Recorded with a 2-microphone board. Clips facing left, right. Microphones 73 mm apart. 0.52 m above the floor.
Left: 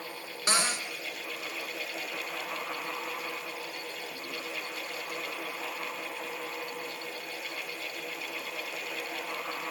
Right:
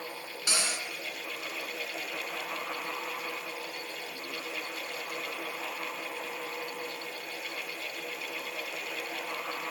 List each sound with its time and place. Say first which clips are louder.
0.5 s a cupboard door: left 5 dB; 45° left (ahead or behind), 3 m